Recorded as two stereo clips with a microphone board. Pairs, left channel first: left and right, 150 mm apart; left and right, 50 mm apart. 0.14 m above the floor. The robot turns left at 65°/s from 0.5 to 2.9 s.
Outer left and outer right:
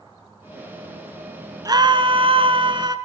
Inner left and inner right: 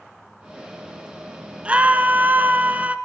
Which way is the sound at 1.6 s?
45° right.